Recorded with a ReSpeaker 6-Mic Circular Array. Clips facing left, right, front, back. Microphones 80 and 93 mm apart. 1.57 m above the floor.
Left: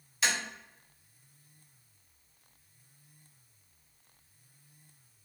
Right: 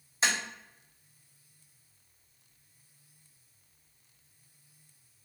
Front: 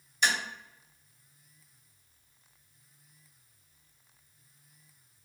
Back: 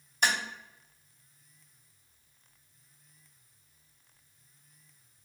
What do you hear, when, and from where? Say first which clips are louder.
0.2 s tapping: right 2 dB, even; 145° right, 1.6 m